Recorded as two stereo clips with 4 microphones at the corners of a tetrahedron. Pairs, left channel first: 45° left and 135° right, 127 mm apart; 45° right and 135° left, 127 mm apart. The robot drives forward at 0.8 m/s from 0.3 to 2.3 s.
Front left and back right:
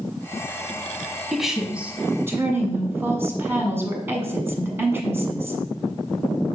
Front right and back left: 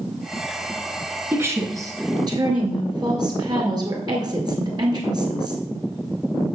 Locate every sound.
1.3 s a woman speaking: 135° left, 1.3 m; by 5.6 s 165° left, 1.7 m